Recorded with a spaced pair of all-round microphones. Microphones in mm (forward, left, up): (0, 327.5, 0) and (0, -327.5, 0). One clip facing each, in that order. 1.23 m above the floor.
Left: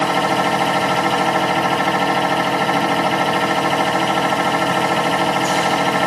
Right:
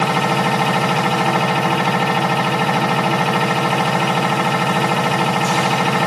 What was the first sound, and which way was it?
A machine running, 35° right (ahead or behind).